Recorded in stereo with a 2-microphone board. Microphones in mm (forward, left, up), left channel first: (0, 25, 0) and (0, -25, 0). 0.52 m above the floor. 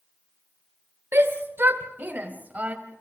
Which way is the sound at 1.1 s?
60° right (ahead or behind).